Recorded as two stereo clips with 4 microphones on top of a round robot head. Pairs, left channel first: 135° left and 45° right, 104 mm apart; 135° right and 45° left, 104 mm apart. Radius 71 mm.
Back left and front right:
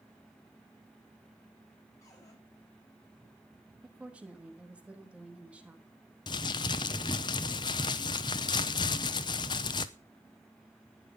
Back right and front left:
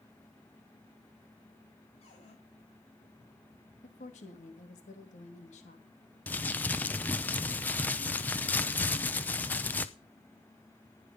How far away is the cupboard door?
About 6.5 m.